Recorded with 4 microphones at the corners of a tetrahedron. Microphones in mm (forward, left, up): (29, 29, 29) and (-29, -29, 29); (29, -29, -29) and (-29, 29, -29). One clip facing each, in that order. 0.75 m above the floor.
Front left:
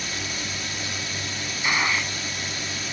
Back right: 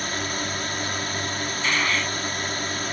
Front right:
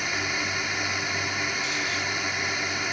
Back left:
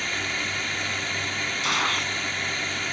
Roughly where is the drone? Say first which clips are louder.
Back right 4 dB, front right 1 dB; behind right.